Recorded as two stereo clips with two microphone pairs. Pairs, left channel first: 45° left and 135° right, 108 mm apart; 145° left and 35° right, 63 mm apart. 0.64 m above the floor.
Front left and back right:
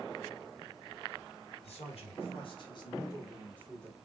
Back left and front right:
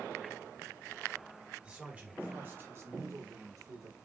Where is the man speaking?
40° left, 3 m; by 4.0 s 35° right, 2.5 m.